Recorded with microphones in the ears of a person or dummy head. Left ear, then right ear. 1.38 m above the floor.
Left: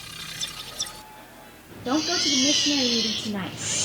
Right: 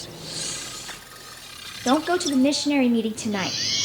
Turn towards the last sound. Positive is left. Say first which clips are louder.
# right 2 dB
turn(degrees=-50)  # may be behind; listen again after turning